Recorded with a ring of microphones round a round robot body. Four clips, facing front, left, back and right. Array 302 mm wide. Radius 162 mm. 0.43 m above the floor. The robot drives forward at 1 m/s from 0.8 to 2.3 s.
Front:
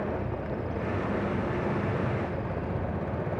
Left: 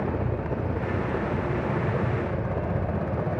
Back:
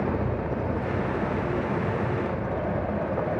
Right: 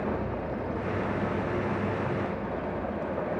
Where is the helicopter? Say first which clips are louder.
Left 2 dB, back 5 dB; 125° left; by 3.4 s 85° left.